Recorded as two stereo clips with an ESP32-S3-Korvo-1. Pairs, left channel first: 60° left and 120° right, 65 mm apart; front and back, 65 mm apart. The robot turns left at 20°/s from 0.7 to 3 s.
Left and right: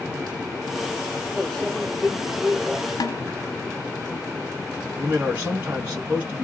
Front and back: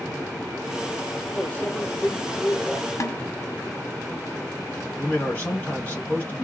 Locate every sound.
1.4 s a microwave: 15° right, 0.7 m; by 2.8 s 40° right, 0.7 m
3.0 s a snare drum: 40° left, 0.6 m
5.0 s a man speaking: 60° right, 1.9 m